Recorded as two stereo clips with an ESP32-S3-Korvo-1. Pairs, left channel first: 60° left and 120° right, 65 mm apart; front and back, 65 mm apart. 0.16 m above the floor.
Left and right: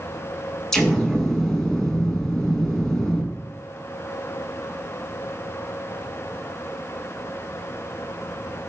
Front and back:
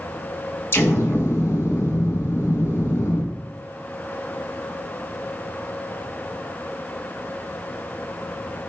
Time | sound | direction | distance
0.7 | an explosion | 15° right | 0.6 m